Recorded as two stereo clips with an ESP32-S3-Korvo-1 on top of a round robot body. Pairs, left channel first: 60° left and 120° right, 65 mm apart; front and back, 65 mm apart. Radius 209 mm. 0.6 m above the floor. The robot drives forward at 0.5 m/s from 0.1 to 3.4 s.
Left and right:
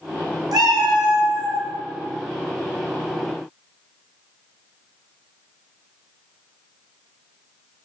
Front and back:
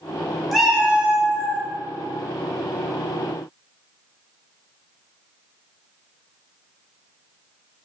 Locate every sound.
0.5 s a cat meowing: 90° right, 0.6 m; by 1.6 s 130° right, 0.8 m